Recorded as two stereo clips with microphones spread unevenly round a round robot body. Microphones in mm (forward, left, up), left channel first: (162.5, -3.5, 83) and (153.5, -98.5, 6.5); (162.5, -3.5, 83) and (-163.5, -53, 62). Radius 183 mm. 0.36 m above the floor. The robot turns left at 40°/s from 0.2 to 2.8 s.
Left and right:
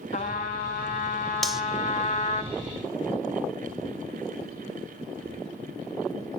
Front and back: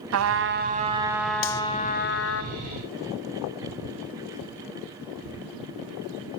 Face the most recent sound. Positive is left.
turn(degrees=-75)